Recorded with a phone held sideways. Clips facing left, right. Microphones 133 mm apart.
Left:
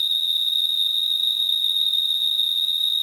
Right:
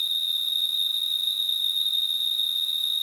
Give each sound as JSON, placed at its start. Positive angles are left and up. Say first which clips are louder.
{"t": 0.0, "sound": "an insect", "louder": "left 4 dB", "side_deg": 65, "distance_m": 1.2}